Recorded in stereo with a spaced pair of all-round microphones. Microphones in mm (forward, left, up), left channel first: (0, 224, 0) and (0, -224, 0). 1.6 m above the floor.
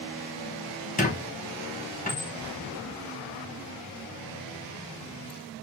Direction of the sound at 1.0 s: 20° left (ahead or behind).